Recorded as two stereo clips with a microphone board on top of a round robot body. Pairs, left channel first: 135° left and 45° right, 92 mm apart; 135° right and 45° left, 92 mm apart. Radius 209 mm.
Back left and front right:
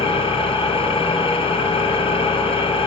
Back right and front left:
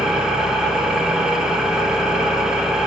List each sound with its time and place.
0.0 s an engine running: 130° left, 1.6 m